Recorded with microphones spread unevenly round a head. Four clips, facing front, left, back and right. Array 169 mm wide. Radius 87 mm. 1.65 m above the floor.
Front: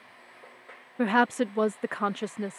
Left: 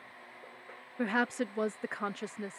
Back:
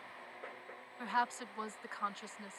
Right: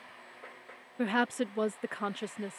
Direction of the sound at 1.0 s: 10° right.